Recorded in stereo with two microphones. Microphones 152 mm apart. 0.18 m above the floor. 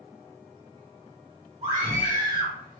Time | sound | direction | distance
1.6 | a scream | 35° right (ahead or behind) | 1.7 m